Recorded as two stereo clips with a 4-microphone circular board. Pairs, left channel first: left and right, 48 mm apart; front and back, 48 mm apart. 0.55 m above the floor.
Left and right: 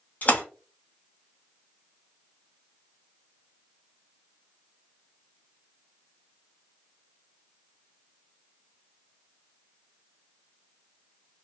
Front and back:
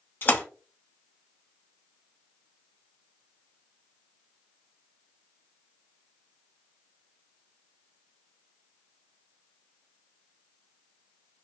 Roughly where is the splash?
Ahead left.